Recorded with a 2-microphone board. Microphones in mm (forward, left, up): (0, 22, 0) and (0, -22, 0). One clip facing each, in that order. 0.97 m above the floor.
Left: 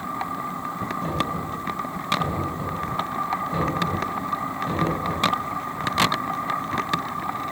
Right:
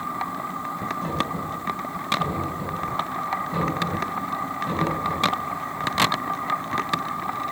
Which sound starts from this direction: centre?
Knocking, at 1.0 s.